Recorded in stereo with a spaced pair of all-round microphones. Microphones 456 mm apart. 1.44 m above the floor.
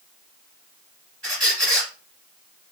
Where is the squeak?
55° right (ahead or behind), 2 m.